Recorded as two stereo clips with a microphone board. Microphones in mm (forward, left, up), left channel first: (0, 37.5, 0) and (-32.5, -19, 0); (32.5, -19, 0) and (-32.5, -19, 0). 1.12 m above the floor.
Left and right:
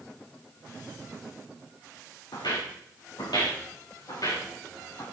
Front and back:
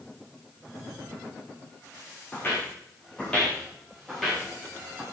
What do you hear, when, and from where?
2.3 s footsteps: 60° left, 5 m; by 5.0 s 95° left, 6.5 m